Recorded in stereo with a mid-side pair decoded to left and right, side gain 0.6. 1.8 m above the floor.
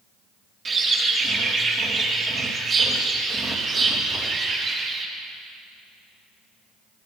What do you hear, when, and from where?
0.7 s a bird: 40° right, 3 m